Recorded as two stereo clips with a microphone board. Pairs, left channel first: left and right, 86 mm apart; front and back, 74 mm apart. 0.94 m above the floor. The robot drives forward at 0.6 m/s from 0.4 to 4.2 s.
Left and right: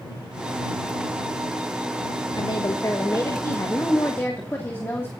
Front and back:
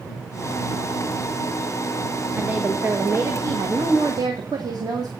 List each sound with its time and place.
2.4 s a woman speaking: 110° left, 1.0 m; by 5.1 s 155° left, 1.7 m